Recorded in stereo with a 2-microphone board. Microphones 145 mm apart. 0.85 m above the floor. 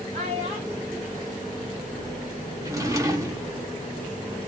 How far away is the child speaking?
About 1.4 m.